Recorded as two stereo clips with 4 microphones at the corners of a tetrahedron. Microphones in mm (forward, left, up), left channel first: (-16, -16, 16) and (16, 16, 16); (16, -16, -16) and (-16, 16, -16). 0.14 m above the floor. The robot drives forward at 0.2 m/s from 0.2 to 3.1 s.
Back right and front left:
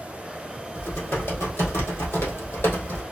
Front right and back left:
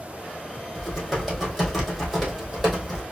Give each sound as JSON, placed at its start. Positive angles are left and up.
{"t": 0.8, "sound": "typing on a keyboard", "azimuth_deg": -125, "distance_m": 2.0}